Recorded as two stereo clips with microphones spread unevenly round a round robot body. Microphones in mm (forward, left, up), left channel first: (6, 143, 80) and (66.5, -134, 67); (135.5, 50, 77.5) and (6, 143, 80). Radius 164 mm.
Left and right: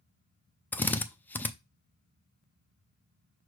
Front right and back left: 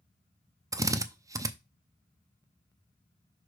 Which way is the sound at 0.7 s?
175° right.